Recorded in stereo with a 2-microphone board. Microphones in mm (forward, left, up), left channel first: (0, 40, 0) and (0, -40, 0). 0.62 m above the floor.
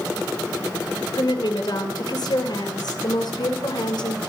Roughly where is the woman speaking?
Left.